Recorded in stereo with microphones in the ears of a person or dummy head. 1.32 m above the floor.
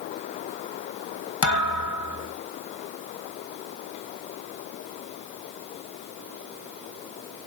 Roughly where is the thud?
Left.